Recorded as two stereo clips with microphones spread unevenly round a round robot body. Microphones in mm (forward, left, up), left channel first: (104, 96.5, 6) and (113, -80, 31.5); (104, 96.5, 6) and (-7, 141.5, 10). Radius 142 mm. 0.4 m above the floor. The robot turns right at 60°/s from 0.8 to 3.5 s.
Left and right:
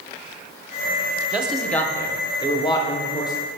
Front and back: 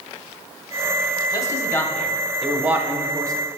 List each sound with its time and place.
1.3 s a man speaking: 5° left, 0.9 m; by 3.3 s 125° left, 0.9 m